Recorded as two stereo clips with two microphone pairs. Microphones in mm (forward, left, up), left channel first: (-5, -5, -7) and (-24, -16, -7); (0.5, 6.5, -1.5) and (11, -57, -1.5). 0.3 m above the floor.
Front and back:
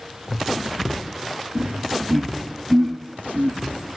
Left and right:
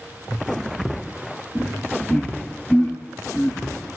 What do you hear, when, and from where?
1.6 s laughter: 165° right, 4.5 m; by 3.6 s 170° right, 3 m